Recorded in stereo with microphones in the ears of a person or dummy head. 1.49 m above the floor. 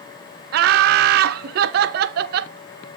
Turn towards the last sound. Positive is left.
turn(degrees=-50)  # may be behind; listen again after turning